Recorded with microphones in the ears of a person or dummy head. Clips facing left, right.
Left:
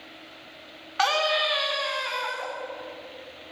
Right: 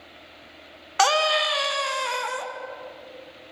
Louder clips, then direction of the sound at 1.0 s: Right 3 dB; 50° right (ahead or behind).